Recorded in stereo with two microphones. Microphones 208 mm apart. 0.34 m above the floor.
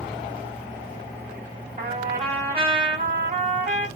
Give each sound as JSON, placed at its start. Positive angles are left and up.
{"t": 1.8, "sound": "a trumpet", "side_deg": -35, "distance_m": 1.8}